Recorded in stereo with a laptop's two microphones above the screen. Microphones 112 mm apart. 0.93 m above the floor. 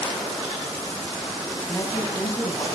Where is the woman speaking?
30° left (ahead or behind), 7 m.